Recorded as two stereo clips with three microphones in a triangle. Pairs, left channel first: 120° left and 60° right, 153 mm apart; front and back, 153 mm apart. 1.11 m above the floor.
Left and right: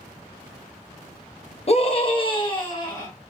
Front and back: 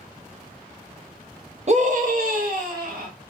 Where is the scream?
155° left, 0.5 m; by 3.1 s 175° right, 1.4 m.